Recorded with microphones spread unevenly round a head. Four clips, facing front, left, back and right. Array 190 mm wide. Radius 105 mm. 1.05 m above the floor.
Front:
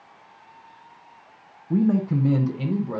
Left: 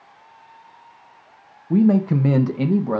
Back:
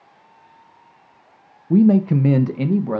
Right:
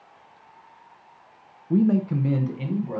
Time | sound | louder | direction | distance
1.7 | a man speaking | left 4 dB, back 7 dB | 160° left | 0.5 m